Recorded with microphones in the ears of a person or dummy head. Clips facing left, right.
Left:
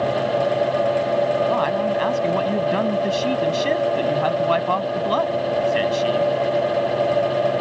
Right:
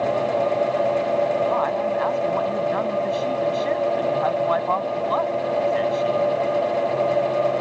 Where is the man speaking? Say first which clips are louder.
Left 2 dB; 35° left (ahead or behind).